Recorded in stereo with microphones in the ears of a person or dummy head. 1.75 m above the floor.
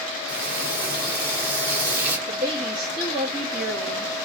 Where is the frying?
5° right (ahead or behind), 2.5 m.